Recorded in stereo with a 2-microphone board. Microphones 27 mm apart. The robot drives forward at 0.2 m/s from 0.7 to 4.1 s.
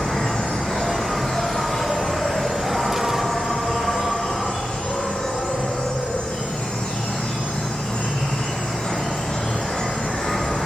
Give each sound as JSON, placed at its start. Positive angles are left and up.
{"t": 0.0, "sound": "an insect", "side_deg": 55, "distance_m": 1.6}